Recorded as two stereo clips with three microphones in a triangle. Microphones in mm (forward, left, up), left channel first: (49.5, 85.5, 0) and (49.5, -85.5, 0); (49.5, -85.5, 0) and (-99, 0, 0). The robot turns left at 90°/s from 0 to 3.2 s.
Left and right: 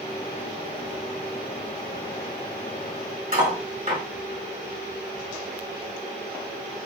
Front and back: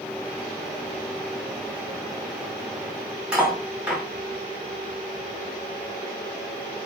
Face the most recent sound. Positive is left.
turn(degrees=-130)